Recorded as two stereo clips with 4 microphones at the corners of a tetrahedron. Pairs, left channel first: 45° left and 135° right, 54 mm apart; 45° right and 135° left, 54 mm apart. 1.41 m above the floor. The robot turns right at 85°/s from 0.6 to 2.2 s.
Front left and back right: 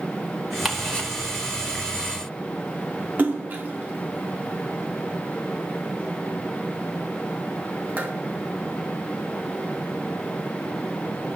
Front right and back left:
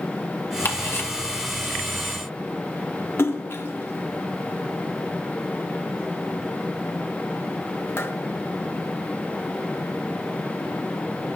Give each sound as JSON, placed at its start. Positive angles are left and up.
{"t": 0.7, "sound": "ticking", "azimuth_deg": -50, "distance_m": 1.8}
{"t": 3.2, "sound": "a splash", "azimuth_deg": -85, "distance_m": 1.0}